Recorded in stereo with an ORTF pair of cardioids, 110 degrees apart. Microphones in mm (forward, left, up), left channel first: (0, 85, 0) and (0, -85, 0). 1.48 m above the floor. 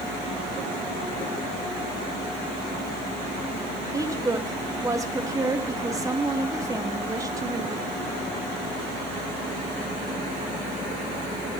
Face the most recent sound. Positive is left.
turn(degrees=-20)